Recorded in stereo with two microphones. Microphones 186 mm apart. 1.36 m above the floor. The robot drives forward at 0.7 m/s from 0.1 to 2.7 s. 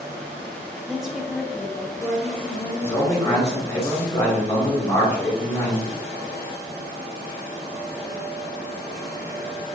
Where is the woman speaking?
5° right (ahead or behind), 0.6 m; by 3.7 s centre (ahead or behind), 1.9 m.